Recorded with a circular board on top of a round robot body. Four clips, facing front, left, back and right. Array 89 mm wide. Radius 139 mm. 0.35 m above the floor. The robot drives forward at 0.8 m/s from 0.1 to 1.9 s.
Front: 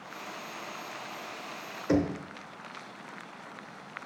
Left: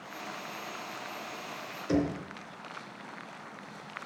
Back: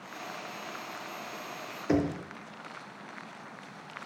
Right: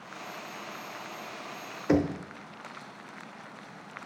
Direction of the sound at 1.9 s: 105° right.